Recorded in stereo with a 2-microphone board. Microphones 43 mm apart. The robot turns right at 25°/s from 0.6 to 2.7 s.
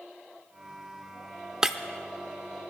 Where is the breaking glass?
15° right (ahead or behind), 0.6 m; by 1.8 s 10° right (ahead or behind), 0.6 m.